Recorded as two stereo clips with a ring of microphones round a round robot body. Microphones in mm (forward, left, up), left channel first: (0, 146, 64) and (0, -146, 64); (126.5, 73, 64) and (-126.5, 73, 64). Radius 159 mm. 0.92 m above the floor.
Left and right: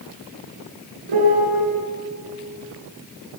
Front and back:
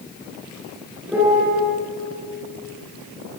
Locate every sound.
1.1 s a piano: 95° right, 7.5 m